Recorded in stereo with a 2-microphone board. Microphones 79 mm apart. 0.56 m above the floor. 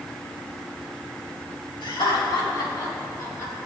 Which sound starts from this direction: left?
Laughter, at 1.8 s.